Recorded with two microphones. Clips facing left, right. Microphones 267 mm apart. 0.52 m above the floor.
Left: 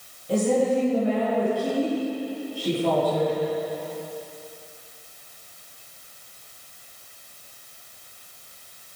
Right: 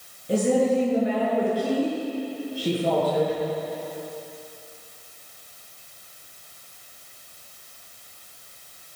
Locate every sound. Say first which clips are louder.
0.3 s a woman speaking: right 1 dB; 20° right (ahead or behind), 8 m